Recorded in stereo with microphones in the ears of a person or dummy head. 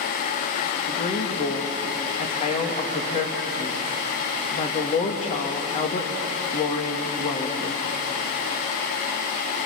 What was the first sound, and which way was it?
A woman speaking, 40° left (ahead or behind).